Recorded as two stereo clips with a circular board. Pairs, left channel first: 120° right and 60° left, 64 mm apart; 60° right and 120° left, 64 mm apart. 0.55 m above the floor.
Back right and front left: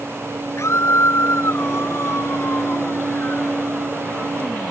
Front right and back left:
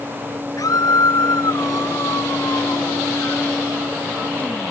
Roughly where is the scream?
Right.